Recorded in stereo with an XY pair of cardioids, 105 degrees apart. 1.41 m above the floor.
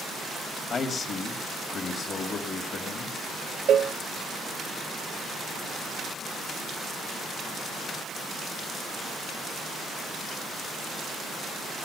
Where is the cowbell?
65° right, 0.6 m.